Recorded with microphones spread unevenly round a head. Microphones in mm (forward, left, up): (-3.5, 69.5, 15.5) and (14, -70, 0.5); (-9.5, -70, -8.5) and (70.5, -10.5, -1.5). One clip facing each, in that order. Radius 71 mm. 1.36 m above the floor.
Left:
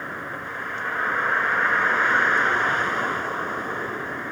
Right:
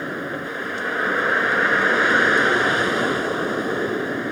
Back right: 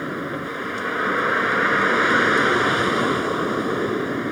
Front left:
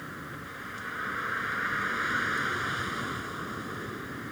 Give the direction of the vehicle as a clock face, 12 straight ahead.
4 o'clock.